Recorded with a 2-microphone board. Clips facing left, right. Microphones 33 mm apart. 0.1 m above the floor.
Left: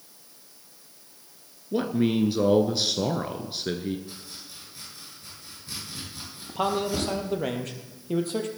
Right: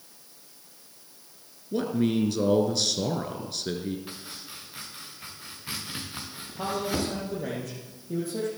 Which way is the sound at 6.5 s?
55° left (ahead or behind).